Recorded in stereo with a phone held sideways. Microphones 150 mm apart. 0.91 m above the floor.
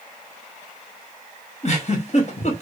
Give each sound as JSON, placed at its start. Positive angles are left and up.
{"t": 1.6, "sound": "a giggle", "side_deg": 50, "distance_m": 0.9}